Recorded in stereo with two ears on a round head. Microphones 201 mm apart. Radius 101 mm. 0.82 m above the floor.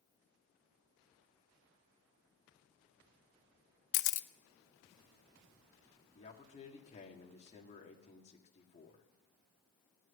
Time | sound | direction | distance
3.9 | a camera shutter | 60° left (ahead or behind) | 0.6 m
6.2 | a man speaking | 30° left (ahead or behind) | 2 m